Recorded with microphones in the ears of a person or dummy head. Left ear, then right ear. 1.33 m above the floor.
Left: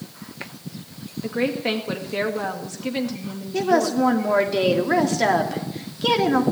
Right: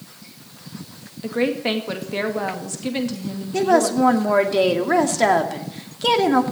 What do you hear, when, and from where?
1.2 s a woman speaking: 10° right (ahead or behind), 2 m
3.5 s a woman speaking: 25° right (ahead or behind), 2.5 m